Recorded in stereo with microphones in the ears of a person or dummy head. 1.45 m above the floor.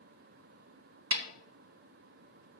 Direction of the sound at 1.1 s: 65° right (ahead or behind).